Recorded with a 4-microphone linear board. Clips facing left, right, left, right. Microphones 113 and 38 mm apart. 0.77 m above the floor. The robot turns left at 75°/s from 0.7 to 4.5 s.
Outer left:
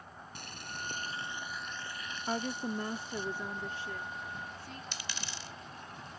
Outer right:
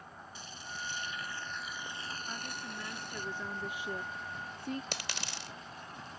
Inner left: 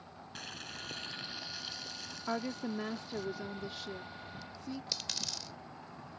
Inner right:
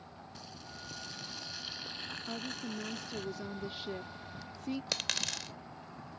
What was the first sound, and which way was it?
Boiling, 70° left.